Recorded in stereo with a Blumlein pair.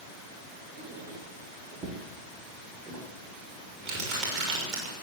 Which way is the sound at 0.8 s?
20° right.